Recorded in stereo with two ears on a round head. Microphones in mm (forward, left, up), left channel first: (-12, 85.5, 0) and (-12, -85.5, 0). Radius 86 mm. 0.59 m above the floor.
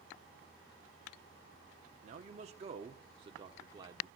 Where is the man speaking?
40° right (ahead or behind), 1.0 m; by 4.1 s 20° right (ahead or behind), 1.5 m.